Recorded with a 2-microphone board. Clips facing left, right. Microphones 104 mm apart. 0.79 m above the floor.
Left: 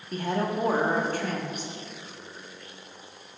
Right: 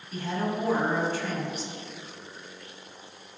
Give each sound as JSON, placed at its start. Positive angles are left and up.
{"t": 0.1, "sound": "a woman speaking", "side_deg": 55, "distance_m": 1.0}